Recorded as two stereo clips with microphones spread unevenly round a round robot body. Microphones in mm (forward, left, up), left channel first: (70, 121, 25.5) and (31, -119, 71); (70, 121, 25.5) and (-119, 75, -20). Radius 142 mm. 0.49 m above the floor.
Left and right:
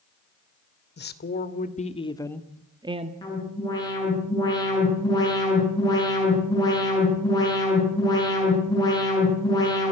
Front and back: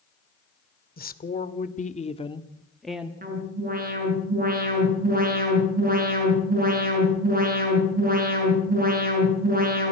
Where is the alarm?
155° left, 7.5 m.